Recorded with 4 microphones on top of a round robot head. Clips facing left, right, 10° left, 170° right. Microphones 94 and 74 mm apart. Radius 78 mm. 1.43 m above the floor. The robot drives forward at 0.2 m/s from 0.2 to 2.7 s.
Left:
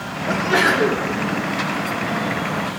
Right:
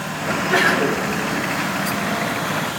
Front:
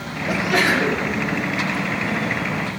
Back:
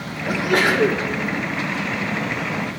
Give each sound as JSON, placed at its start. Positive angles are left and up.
{"t": 0.3, "sound": "a sneeze", "azimuth_deg": 160, "distance_m": 2.0}